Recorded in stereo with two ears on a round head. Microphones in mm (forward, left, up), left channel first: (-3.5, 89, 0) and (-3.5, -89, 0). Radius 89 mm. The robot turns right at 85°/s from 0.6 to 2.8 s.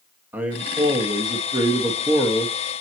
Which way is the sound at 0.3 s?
10° right (ahead or behind).